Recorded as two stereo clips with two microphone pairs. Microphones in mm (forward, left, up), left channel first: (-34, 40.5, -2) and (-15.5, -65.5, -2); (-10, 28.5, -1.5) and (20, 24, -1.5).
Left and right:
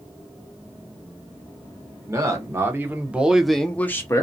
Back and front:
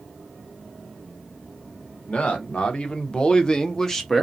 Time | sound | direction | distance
2.1 | a man speaking | 135° right | 1.1 m